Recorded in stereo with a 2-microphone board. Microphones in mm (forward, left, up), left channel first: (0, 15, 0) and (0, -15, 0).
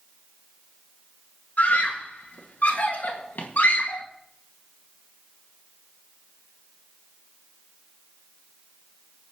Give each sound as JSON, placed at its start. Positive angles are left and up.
{"t": 1.6, "sound": "a scream", "side_deg": 75, "distance_m": 1.7}